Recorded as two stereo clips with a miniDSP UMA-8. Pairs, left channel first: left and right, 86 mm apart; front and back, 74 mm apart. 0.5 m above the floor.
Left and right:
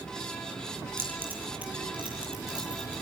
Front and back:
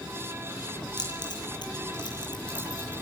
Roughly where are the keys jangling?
Ahead right.